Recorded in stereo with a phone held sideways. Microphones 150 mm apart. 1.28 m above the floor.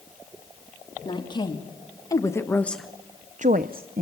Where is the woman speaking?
30° left (ahead or behind), 3 m; by 4.0 s 70° right (ahead or behind), 1.1 m.